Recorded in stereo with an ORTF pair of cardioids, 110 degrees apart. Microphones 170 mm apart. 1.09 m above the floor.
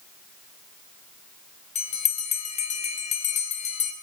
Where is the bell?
45° left, 1.6 m.